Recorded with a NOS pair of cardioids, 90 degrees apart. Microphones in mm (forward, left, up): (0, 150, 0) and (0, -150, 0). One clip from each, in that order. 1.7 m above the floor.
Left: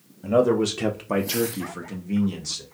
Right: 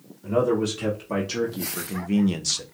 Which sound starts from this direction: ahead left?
A man speaking, at 0.2 s.